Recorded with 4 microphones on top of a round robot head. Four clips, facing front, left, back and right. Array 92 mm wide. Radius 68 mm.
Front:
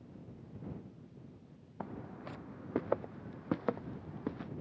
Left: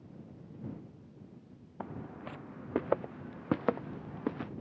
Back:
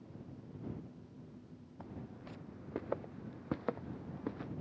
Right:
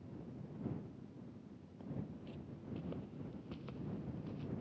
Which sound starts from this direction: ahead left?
Footsteps, at 1.8 s.